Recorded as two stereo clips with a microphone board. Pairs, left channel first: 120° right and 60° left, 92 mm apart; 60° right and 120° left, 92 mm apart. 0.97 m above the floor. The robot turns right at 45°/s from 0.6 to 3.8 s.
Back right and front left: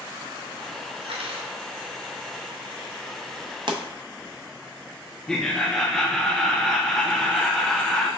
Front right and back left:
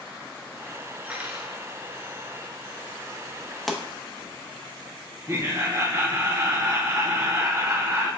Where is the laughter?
160° left, 0.5 m.